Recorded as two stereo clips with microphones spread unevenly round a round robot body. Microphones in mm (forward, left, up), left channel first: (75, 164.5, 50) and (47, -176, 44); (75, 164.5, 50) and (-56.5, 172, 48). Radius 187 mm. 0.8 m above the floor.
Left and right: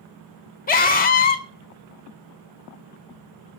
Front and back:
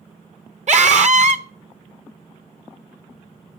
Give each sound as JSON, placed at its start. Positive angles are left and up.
{"t": 0.7, "sound": "a scream", "azimuth_deg": 150, "distance_m": 1.8}